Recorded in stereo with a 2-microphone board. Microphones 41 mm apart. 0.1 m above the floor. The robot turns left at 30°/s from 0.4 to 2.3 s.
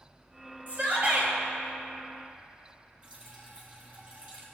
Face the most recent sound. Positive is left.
turn(degrees=-35)  # may be behind; listen again after turning